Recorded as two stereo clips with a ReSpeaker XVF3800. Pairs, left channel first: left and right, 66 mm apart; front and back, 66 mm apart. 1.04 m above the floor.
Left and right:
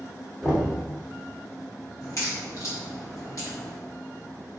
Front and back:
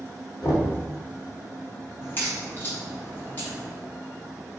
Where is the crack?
55° left, 1.5 m.